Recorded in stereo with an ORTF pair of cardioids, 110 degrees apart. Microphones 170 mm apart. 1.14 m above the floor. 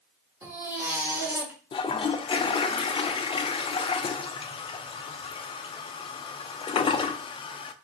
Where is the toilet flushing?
30° left, 0.5 m.